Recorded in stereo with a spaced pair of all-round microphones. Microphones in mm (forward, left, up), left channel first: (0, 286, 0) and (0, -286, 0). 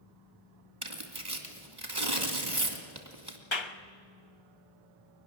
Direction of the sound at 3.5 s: 50° left (ahead or behind).